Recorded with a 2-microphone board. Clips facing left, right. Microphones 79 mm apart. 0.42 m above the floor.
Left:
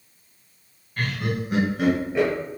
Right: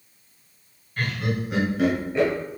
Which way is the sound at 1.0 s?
15° left (ahead or behind).